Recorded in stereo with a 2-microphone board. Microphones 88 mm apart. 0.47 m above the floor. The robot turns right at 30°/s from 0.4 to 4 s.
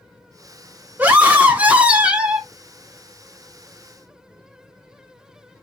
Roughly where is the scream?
Centre.